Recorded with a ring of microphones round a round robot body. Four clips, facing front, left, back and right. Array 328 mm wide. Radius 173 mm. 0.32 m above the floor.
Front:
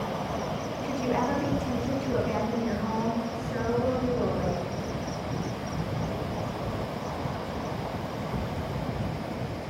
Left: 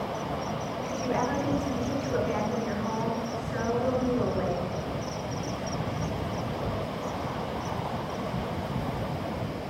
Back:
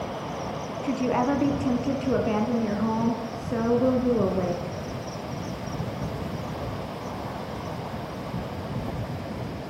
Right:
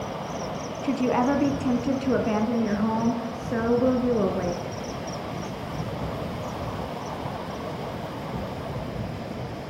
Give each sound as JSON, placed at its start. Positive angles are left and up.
{"t": 0.8, "sound": "a woman speaking", "azimuth_deg": -120, "distance_m": 4.0}